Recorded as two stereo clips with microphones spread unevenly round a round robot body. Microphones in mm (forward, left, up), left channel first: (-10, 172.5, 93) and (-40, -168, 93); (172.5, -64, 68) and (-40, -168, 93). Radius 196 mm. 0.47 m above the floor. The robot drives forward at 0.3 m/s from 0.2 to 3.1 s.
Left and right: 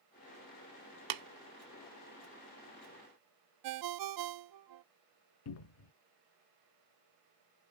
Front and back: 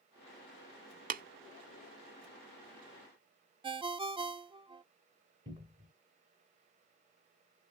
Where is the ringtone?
80° right, 0.5 m.